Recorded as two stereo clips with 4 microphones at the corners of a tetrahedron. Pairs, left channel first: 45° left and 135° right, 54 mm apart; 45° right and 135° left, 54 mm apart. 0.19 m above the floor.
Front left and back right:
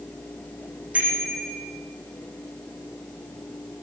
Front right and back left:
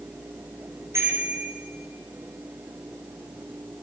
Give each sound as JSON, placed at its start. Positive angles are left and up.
{"t": 0.9, "sound": "a bicycle bell", "azimuth_deg": 160, "distance_m": 8.5}